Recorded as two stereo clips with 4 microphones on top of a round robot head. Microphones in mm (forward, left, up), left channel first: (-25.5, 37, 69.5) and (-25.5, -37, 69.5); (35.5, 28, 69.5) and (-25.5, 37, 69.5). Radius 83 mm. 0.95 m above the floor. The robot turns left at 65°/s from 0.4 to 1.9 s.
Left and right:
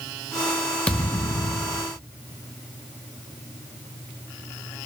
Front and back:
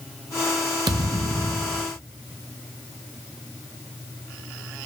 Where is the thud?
165° left, 0.6 m; by 1.9 s 100° left, 0.6 m.